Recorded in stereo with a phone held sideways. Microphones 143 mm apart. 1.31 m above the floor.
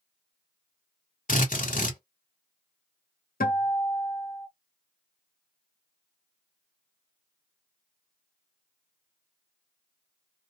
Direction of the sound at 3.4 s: 85° left.